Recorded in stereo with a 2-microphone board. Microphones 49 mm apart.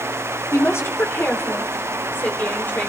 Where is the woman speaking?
60° left (ahead or behind), 2.5 m; by 2.9 s 35° left (ahead or behind), 4.5 m.